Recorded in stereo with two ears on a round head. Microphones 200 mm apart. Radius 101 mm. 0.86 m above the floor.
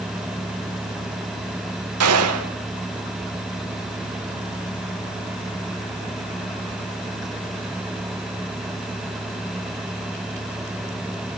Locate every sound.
2.0 s a gunshot: 75° right (ahead or behind), 3 m